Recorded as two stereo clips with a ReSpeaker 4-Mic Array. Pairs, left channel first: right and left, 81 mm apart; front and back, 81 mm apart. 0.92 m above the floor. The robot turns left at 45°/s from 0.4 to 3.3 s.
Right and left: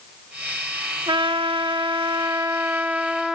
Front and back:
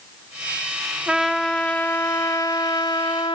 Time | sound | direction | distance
1.1 | a trumpet | 105° left | 0.5 m